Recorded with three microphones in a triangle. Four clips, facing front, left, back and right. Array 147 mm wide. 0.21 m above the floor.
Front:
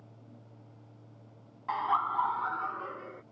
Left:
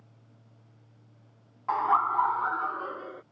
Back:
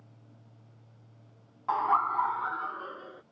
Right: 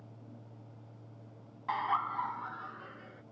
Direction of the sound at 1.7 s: 125° left.